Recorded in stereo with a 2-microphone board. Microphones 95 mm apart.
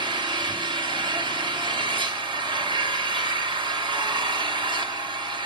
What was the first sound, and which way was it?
An engine running, 55° right (ahead or behind).